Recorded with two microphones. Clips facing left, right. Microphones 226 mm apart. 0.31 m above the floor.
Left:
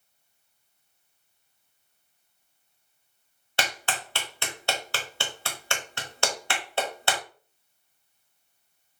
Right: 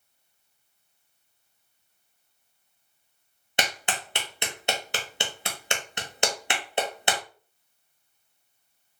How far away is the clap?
About 0.8 m.